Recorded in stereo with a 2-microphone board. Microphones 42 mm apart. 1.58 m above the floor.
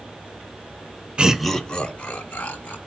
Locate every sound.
1.2 s laughter: 25° right (ahead or behind), 0.6 m; by 2.8 s 40° left (ahead or behind), 2.5 m